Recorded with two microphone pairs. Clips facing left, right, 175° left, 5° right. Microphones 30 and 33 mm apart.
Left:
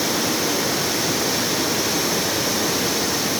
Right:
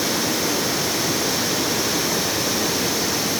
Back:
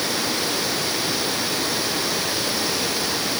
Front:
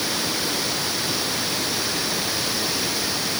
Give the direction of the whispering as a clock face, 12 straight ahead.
I don't hear whispering.